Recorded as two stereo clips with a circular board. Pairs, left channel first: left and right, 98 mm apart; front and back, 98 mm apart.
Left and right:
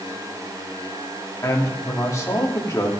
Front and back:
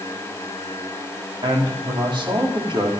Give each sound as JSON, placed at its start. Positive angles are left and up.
{"t": 1.4, "sound": "a man speaking", "azimuth_deg": 150, "distance_m": 3.5}